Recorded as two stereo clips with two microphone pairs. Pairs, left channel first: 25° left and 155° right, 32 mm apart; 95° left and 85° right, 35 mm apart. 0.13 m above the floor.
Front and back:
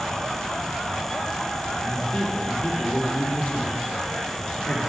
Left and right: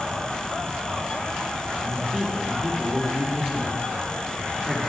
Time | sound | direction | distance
1.8 | a man speaking | 10° left | 3.5 m